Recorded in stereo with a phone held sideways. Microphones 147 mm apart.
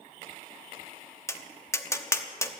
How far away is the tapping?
About 0.9 m.